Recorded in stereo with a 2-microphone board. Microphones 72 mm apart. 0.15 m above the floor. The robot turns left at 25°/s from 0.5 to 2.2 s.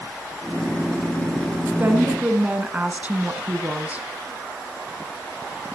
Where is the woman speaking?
25° right (ahead or behind), 1.3 m; by 4.1 s 20° right (ahead or behind), 1.3 m.